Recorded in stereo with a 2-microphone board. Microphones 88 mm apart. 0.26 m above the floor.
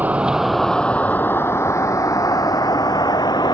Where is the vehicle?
20° right (ahead or behind); by 3.5 s 50° left (ahead or behind).